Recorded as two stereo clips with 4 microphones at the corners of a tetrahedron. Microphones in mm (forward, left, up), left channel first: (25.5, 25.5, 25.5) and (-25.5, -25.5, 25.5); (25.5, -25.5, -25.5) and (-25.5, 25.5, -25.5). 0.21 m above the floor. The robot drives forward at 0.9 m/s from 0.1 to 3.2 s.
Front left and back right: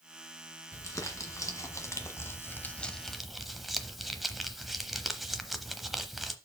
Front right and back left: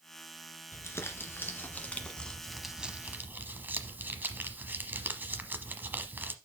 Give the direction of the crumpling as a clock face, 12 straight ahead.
12 o'clock.